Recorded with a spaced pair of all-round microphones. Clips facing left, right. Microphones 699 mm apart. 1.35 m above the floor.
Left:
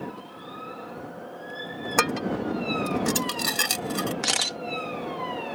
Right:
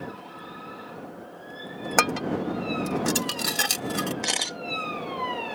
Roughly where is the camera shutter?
Left.